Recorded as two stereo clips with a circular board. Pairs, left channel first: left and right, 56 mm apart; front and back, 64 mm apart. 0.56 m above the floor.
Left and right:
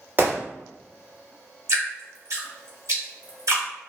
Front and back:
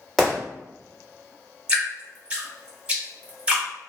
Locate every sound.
0.2 s a gunshot: 80° right, 1.3 m
1.7 s dripping: 105° right, 1.2 m